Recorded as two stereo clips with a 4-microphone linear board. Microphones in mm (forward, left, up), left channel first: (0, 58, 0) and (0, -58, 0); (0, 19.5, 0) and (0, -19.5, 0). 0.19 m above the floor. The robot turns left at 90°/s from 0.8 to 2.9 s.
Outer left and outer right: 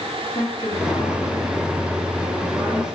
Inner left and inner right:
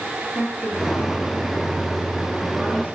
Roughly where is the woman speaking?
Behind left.